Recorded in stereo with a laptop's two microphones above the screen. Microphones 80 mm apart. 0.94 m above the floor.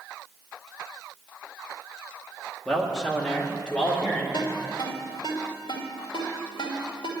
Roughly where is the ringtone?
Left.